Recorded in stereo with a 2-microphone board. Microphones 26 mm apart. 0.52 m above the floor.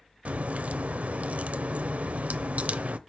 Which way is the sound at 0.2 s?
75° right (ahead or behind).